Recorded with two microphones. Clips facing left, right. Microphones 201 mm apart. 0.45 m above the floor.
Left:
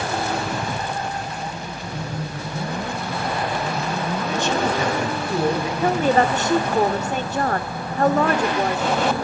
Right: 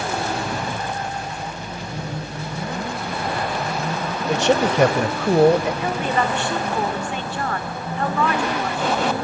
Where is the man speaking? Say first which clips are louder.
Right 6 dB; 65° right (ahead or behind), 2.0 m.